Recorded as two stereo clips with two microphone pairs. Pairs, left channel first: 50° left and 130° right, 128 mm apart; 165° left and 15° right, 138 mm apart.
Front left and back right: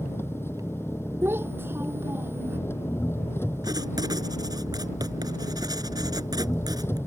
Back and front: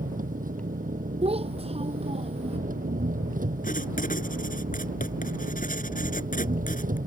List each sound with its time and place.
0.0 s an engine running: 20° right
1.2 s a child speaking: 55° right
3.6 s writing: 170° left